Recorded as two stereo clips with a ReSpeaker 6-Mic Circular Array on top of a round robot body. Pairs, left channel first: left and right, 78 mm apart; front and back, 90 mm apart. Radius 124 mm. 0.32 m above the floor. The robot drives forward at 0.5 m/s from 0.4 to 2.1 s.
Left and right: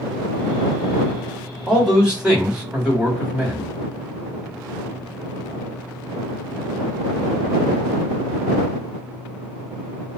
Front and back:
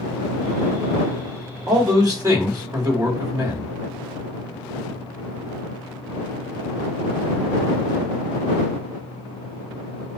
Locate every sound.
1.7 s a man speaking: 165° right, 1.8 m